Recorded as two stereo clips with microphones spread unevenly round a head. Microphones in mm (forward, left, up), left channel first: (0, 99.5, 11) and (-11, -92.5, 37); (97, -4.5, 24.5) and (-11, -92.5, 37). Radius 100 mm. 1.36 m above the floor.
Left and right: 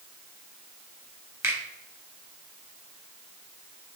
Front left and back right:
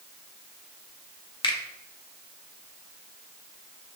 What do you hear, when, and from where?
1.4 s a finger snap: 15° right, 1.8 m